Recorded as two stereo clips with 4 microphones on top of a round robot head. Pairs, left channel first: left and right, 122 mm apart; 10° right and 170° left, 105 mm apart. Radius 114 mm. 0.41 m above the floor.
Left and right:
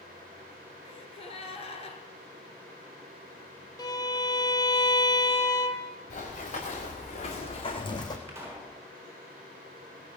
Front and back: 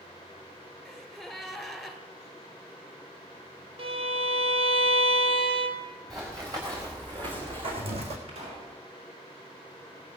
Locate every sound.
0.8 s a gasp: 80° left, 1.9 m
3.8 s a violin: 145° left, 1.5 m
6.1 s running footsteps: 110° left, 4.5 m; by 8.2 s 150° left, 2 m
8.3 s a pop: 160° right, 4 m